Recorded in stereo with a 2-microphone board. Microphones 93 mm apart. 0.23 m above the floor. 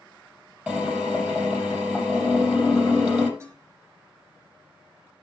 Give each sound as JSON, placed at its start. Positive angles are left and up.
{"t": 0.7, "sound": "a drill", "side_deg": -15, "distance_m": 5.5}
{"t": 3.4, "sound": "dishes clattering", "side_deg": -30, "distance_m": 7.0}